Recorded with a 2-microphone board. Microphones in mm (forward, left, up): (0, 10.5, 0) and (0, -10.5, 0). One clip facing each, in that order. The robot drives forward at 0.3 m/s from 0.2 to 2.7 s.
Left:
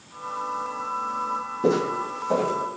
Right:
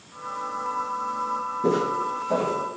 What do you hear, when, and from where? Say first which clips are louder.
1.6 s footsteps: left 1 dB; 50° left (ahead or behind), 0.5 m; by 2.6 s 30° left (ahead or behind), 0.7 m